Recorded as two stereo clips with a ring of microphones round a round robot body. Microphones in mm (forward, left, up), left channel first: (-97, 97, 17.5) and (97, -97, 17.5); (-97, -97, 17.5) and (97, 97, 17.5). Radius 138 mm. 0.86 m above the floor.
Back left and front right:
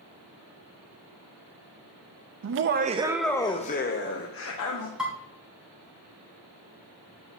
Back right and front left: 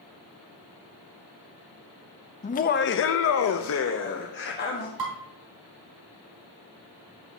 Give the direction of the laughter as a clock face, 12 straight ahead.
2 o'clock.